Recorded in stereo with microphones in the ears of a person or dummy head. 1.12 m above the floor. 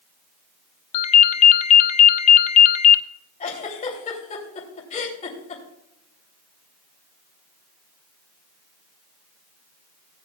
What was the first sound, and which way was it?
A ringtone, 40° left (ahead or behind).